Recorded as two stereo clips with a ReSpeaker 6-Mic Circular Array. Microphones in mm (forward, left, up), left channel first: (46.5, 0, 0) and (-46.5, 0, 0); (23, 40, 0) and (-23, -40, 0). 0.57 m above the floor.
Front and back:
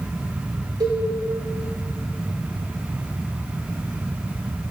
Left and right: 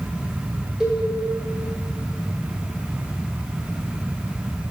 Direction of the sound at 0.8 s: 155° left.